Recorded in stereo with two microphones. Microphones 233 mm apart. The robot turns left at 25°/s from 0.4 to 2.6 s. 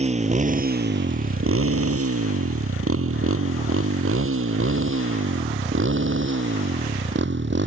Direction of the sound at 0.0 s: 30° right (ahead or behind).